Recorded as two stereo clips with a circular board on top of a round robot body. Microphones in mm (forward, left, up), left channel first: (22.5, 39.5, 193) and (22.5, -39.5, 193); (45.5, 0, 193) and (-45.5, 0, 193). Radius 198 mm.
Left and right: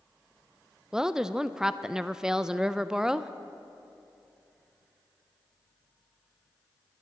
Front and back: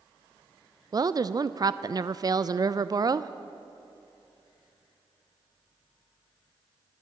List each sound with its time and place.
0.9 s a woman speaking: 170° right, 0.5 m